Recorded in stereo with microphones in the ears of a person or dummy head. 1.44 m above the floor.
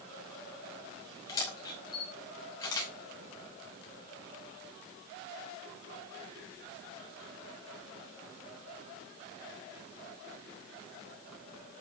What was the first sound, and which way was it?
A camera shutter, 20° left (ahead or behind).